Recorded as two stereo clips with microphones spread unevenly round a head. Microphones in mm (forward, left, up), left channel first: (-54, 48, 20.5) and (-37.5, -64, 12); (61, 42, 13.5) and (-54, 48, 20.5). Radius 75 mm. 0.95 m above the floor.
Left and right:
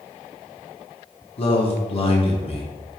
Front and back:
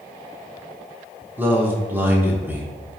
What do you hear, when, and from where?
1.4 s a man speaking: 105° left, 1.2 m